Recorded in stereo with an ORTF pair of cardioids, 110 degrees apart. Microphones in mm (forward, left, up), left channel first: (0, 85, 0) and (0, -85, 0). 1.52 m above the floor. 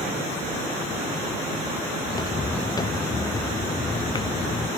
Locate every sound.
2.0 s footsteps: 20° left; by 4.7 s 25° left